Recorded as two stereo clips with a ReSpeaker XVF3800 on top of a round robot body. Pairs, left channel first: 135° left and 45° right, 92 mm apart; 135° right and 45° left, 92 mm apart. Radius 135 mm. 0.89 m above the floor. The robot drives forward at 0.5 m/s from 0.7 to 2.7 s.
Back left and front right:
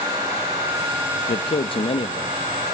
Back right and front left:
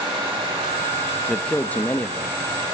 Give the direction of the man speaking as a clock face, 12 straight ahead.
7 o'clock.